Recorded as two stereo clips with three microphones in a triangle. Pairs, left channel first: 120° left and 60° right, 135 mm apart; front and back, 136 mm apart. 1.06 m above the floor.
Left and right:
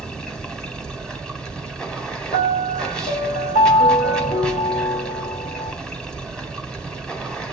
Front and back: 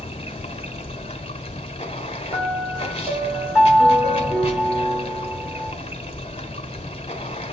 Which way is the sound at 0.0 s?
35° left.